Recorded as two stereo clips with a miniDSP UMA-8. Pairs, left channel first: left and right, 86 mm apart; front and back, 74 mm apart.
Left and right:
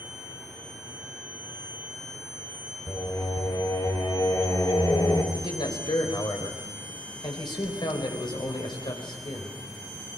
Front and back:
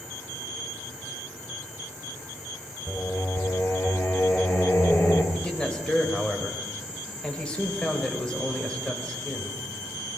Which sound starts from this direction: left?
A man speaking, at 5.3 s.